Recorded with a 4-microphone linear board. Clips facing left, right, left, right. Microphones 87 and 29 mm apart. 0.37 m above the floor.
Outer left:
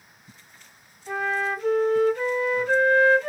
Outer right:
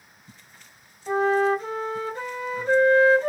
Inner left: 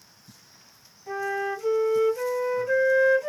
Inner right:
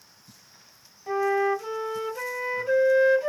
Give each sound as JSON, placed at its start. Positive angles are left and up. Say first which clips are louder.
{"t": 1.1, "sound": "a flute", "louder": "outer right 6 dB, inner right 5 dB", "side_deg": -35, "distance_m": 1.9}